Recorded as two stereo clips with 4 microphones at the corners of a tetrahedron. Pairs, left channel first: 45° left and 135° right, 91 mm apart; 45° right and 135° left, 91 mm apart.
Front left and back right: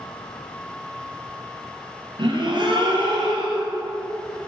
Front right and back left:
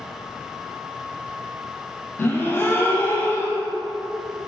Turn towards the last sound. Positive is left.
turn(degrees=-110)